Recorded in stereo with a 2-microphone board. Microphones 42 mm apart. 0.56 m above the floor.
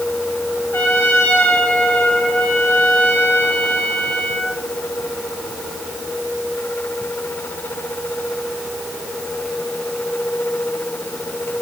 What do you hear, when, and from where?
0.7 s a trumpet: 80° left, 5.5 m